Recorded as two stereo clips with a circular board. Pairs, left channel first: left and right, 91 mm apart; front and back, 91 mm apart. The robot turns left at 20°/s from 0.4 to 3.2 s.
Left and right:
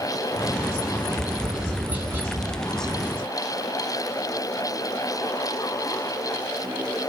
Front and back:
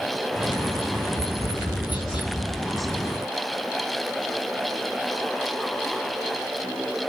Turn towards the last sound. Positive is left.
turn(degrees=-45)